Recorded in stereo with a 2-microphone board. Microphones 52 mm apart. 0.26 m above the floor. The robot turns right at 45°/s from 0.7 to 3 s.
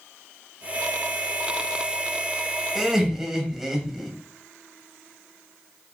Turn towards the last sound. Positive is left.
turn(degrees=-5)  # may be behind; listen again after turning